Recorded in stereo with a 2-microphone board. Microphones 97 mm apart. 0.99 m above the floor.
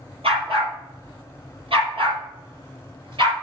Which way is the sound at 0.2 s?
80° right.